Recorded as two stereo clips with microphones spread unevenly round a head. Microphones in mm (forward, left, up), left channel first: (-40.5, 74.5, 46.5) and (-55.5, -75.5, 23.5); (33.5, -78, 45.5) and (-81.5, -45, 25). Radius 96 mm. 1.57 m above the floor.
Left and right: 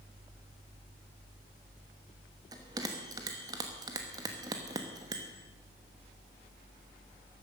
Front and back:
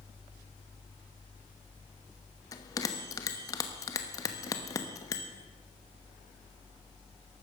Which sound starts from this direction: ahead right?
A bell, at 2.5 s.